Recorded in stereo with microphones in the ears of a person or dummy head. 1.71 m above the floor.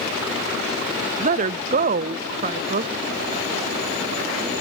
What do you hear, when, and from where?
1.2 s a woman speaking: 40° right (ahead or behind), 0.6 m